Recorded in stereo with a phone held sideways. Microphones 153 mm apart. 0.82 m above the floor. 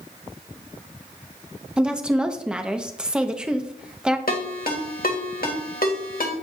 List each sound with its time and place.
1.8 s a woman speaking: 5° right (ahead or behind), 0.6 m
4.3 s a ringtone: 70° left (ahead or behind), 1.3 m